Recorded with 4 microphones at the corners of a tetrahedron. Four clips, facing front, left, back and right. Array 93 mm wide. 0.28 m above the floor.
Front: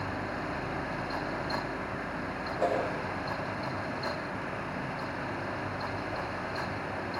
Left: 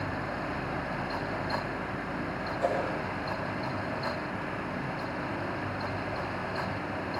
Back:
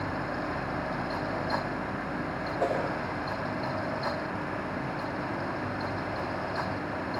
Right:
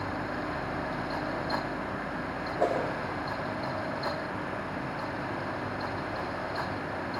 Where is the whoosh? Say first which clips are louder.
Right 2 dB, even; 135° right, 9 m.